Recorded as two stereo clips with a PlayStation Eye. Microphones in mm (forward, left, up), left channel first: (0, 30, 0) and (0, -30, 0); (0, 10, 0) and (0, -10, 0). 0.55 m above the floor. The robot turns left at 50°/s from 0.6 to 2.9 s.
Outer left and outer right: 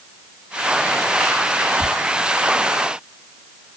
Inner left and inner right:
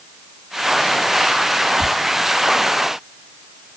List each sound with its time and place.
1.8 s ticking: 25° left (ahead or behind), 4 m